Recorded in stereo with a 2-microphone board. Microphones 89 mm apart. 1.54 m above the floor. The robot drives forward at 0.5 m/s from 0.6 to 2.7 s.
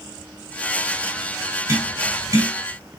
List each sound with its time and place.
1.7 s tapping: 40° right (ahead or behind), 2.5 m; by 2.5 s 45° right (ahead or behind), 2.5 m